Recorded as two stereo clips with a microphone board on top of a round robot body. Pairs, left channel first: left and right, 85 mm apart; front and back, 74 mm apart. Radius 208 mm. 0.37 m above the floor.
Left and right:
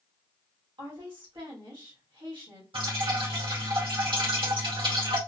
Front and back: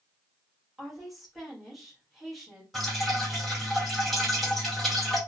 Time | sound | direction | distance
0.8 | a woman speaking | 90° right | 2 m
2.7 | dripping | 90° right | 2 m